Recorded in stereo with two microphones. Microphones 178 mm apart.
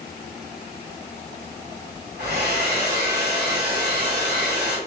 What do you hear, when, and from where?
2.2 s a hair dryer: 65° right (ahead or behind), 1.7 m